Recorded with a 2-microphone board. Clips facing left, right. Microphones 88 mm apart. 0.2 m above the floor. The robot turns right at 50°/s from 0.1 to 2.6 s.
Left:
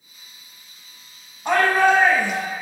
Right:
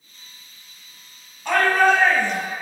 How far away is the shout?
About 1.2 m.